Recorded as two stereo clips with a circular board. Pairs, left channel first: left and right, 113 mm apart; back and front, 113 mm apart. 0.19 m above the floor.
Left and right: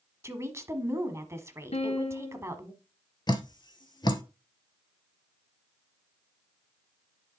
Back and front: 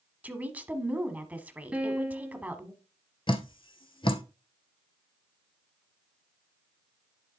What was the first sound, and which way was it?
A woman speaking, 60° right.